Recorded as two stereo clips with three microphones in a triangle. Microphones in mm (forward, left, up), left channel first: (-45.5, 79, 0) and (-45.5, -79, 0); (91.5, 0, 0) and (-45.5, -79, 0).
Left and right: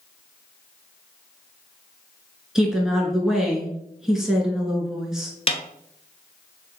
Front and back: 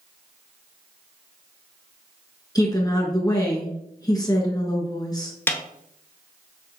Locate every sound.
2.5 s a woman speaking: 5° right, 1.2 m
5.5 s a snare drum: 95° left, 0.5 m